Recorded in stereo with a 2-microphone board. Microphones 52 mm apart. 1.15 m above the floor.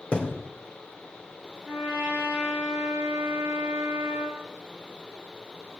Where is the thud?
20° left (ahead or behind), 2.5 m.